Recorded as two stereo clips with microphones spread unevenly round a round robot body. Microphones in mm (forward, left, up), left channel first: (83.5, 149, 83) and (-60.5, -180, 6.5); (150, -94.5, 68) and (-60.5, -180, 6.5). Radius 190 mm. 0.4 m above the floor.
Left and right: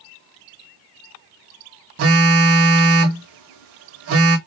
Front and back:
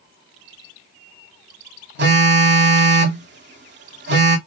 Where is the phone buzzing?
150° right, 0.8 m.